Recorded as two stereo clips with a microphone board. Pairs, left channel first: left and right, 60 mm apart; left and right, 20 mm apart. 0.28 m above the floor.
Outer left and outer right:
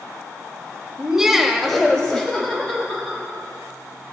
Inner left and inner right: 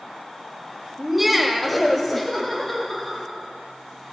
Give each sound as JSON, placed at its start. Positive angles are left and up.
{"t": 1.0, "sound": "laughter", "side_deg": -10, "distance_m": 1.1}